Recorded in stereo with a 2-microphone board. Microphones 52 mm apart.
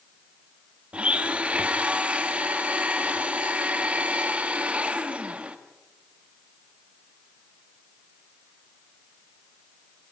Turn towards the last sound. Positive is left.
turn(degrees=-25)  # may be behind; listen again after turning